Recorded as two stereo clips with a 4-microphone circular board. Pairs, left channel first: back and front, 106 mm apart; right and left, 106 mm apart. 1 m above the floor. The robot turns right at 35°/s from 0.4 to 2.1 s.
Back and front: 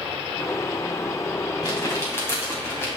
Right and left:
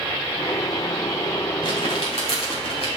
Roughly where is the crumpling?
Behind right.